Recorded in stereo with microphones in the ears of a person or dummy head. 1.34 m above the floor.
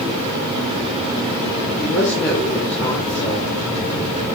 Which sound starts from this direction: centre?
A woman speaking, at 1.8 s.